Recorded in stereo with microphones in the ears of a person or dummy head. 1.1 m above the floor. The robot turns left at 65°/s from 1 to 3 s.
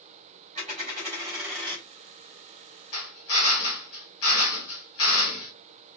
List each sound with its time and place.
0.6 s a dropped coin: 140° right, 2.5 m; by 1.9 s 165° left, 2.5 m
2.9 s a drill: 75° left (ahead or behind), 2.5 m